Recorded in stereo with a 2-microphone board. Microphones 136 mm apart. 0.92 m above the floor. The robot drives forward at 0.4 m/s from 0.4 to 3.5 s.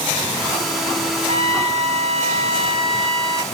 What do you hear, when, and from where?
1.3 s a trumpet: 45° right (ahead or behind), 0.9 m; by 3.4 s 40° right (ahead or behind), 1.0 m